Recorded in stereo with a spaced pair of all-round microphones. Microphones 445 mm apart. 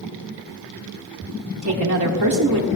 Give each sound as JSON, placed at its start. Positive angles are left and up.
{"t": 1.6, "sound": "a woman speaking", "side_deg": -40, "distance_m": 1.2}